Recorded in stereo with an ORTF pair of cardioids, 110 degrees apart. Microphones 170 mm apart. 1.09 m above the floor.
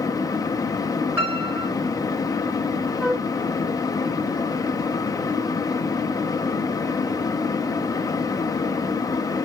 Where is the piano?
10° right, 5 m.